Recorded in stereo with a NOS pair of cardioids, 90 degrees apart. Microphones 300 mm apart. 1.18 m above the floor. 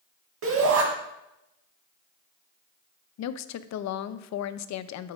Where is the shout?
60° right, 1.5 m.